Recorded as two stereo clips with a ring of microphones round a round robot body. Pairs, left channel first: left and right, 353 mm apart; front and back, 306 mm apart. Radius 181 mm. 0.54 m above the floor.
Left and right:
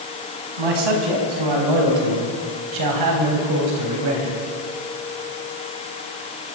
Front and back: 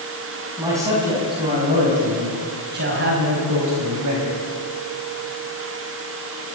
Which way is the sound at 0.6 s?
95° right.